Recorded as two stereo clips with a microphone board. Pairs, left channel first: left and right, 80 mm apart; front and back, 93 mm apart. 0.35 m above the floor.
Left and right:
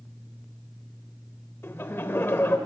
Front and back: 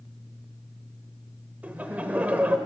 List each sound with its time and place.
1.6 s laughter: 120° left, 1.0 m